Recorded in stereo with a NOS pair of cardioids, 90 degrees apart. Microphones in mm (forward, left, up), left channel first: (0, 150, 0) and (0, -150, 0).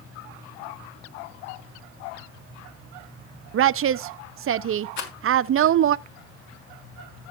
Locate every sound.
3.5 s a woman speaking: 45° right, 0.6 m
5.0 s a rattle: 70° left, 3 m